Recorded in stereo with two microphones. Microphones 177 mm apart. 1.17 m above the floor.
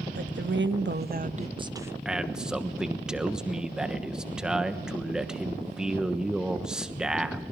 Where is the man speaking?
5° right (ahead or behind), 1.1 m.